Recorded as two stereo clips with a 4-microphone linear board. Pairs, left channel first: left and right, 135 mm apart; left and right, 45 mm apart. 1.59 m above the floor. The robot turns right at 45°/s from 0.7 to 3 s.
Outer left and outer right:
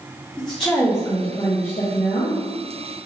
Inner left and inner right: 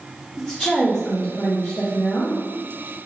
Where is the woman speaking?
5° left, 1.2 m; by 2.4 s 80° left, 1.2 m.